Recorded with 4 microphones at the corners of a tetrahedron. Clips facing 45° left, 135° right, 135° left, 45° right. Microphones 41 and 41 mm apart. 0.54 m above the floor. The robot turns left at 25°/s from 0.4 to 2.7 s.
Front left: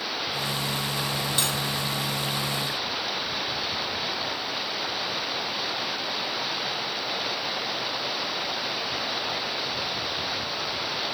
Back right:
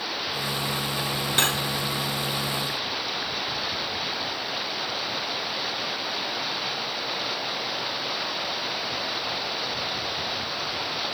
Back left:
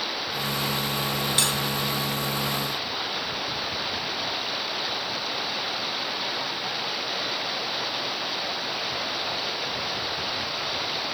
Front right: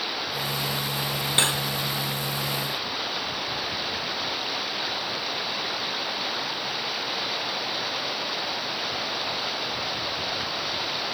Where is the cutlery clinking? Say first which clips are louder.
Back right 7 dB, front right 4 dB; 100° right, 0.8 m; by 1.6 s 105° right, 0.8 m.